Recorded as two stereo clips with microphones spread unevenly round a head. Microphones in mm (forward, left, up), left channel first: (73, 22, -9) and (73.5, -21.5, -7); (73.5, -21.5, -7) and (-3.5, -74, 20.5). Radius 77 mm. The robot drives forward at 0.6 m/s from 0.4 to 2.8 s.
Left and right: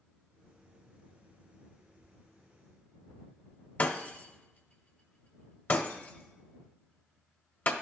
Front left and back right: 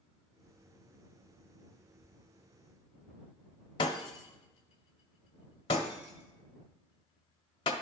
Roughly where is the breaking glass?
Left.